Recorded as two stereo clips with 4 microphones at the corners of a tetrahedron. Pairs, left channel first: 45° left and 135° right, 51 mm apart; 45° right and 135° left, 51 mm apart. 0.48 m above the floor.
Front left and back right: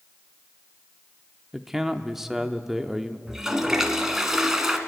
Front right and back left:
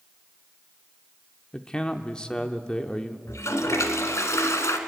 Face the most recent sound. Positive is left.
turn(degrees=-55)